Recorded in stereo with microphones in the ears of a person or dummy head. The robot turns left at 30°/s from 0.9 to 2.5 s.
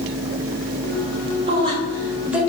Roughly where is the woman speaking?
Right.